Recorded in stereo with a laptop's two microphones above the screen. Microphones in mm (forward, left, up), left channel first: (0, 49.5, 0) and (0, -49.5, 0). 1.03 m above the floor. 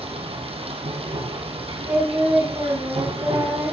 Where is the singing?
20° right (ahead or behind), 7.5 m.